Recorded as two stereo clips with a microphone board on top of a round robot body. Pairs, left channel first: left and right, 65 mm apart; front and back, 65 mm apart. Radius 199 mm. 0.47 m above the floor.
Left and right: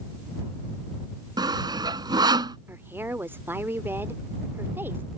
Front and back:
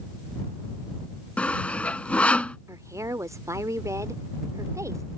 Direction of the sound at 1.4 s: 75° right.